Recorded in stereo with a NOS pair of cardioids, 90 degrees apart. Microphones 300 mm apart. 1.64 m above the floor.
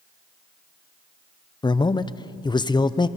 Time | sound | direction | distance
1.6 | a man speaking | 15° left | 0.7 m